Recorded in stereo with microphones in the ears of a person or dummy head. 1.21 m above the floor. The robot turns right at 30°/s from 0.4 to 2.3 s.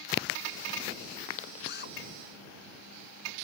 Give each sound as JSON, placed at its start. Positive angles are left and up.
{"t": 1.7, "sound": "a drill", "side_deg": 55}